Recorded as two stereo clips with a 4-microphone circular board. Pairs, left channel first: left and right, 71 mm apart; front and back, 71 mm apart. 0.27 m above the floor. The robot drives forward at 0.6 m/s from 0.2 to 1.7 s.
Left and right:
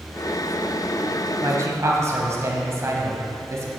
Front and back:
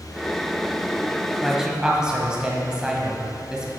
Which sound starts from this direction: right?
A man speaking, at 1.4 s.